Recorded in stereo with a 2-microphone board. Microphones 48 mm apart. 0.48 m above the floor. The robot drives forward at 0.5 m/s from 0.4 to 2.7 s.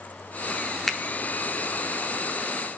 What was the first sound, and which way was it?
A finger snap, centre (ahead or behind).